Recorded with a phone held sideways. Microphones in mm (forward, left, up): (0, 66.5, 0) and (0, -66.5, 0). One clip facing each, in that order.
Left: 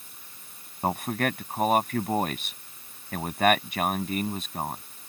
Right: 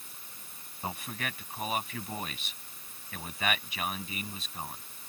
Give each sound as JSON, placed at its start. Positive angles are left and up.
{"t": 0.8, "sound": "a man speaking", "side_deg": 55}